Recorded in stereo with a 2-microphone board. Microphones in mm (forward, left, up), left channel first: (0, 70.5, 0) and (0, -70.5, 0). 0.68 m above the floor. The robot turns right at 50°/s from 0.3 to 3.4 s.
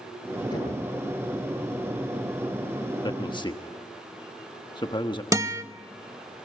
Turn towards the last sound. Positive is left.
turn(degrees=-25)  # may be behind; listen again after turning